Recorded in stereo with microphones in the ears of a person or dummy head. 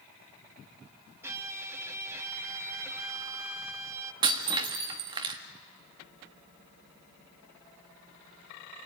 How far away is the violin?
About 1.5 m.